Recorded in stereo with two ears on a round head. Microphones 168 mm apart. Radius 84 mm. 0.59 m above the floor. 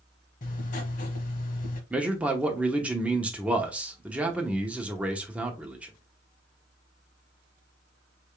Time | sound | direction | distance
0.4 | writing | 45° left (ahead or behind) | 1.1 m
1.9 | a man speaking | 5° right (ahead or behind) | 0.9 m